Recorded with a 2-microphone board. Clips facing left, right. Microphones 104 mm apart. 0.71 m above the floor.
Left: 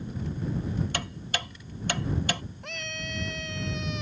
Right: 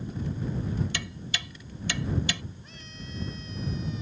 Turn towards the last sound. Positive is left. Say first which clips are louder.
# left 7 dB
turn(degrees=70)  # may be behind; listen again after turning